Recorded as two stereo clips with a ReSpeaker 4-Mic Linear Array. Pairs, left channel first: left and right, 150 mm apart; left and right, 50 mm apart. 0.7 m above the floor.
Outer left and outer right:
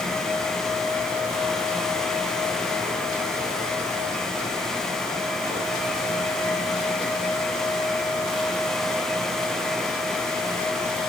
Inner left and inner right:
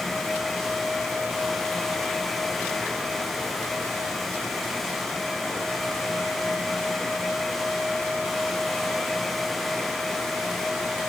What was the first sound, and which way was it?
Only background noise.